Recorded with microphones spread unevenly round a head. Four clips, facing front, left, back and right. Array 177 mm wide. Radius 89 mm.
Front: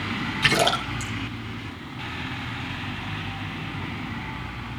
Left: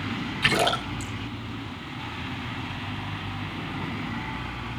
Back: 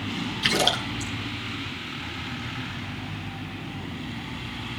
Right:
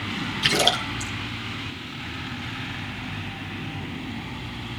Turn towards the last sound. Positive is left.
turn(degrees=15)